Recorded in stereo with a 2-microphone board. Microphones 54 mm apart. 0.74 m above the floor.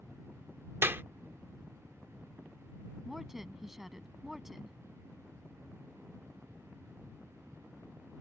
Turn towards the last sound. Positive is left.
turn(degrees=-5)  # may be behind; listen again after turning